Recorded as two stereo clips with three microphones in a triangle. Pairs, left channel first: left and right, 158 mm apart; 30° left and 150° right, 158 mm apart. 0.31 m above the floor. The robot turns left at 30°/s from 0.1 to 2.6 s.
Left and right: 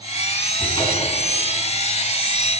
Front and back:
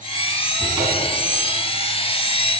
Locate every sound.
0.6 s a cupboard door: 155° left, 3.5 m; by 1.3 s 135° left, 3.5 m